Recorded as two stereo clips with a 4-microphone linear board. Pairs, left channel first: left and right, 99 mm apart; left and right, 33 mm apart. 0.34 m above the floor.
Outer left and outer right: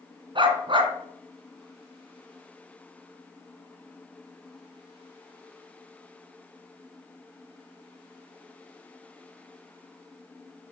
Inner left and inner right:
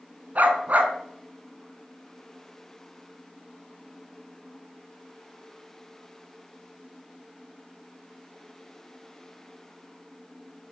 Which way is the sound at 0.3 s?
55° right (ahead or behind).